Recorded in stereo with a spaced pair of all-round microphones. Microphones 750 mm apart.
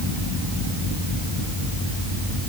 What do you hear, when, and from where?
Only background noise.